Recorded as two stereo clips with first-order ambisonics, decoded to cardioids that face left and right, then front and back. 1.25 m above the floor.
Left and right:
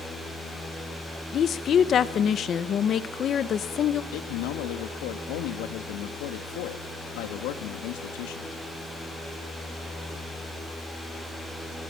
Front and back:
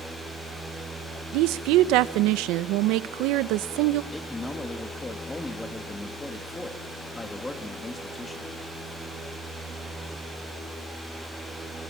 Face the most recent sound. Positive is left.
turn(degrees=80)